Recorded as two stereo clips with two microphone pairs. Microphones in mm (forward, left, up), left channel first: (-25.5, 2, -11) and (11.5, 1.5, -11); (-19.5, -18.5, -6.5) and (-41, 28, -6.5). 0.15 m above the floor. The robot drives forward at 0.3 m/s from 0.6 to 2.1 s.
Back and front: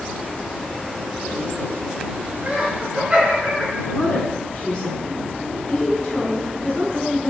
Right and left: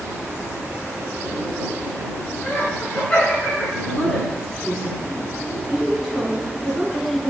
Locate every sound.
2.4 s laughter: 15° right, 1.9 m
3.9 s a woman speaking: 160° right, 1.6 m